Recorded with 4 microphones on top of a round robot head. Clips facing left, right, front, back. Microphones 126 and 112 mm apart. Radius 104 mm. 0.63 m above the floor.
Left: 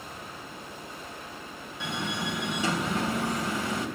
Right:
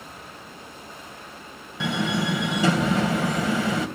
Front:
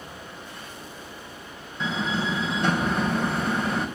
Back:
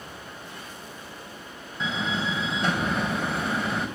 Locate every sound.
1.8 s a door slam: 90° right, 3 m